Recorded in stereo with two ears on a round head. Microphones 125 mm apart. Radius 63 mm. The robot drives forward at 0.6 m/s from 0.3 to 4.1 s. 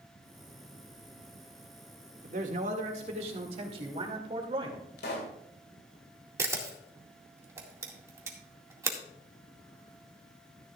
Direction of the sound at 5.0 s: 90° left.